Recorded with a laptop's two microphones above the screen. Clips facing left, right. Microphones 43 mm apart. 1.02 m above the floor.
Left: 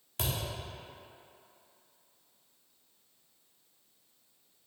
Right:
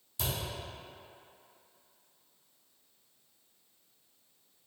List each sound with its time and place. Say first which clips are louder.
0.2 s a thud: left 1 dB; 50° left (ahead or behind), 1.0 m